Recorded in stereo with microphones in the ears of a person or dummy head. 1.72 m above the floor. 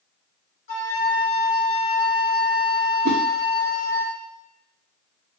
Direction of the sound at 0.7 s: 50° left (ahead or behind).